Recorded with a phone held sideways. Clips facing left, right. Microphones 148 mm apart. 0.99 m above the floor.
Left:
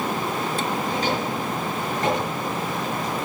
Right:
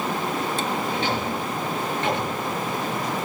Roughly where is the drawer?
Left.